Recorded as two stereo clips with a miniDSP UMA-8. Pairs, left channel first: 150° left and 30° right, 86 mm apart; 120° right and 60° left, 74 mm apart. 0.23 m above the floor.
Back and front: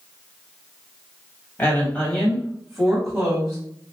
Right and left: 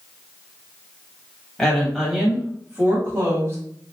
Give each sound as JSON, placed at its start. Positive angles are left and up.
{"t": 1.6, "sound": "a woman speaking", "azimuth_deg": 170, "distance_m": 1.1}